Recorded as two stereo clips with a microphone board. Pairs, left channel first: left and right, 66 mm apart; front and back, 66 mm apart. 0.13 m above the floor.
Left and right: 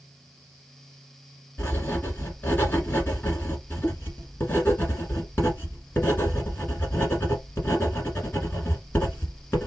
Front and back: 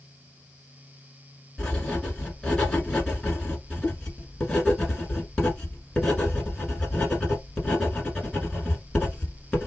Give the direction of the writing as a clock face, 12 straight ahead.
10 o'clock.